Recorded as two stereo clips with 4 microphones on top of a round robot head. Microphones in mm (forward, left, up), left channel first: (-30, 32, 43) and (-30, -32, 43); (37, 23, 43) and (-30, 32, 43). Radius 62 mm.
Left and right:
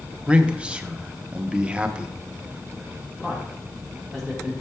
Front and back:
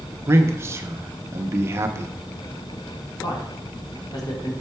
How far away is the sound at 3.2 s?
About 1.9 m.